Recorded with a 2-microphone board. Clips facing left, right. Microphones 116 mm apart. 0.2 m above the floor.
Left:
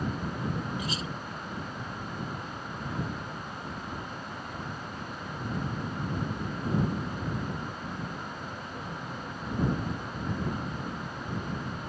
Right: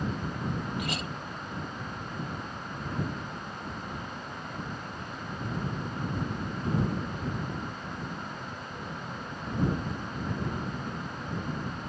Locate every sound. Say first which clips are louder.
0.8 s a clink: right 1 dB; 70° right (ahead or behind)